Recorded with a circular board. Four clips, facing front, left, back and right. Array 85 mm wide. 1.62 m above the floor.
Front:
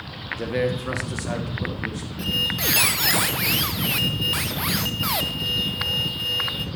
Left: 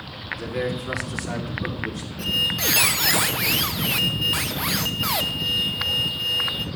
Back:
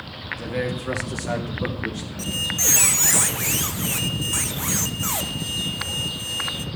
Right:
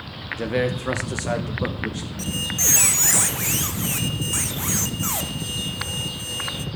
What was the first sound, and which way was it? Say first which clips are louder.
A man speaking: right 4 dB, front 3 dB; 70° right.